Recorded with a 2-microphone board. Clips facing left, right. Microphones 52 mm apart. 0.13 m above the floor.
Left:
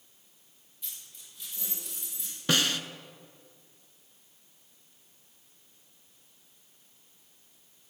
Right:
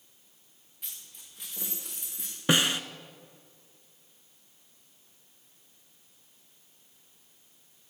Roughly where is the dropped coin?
Right.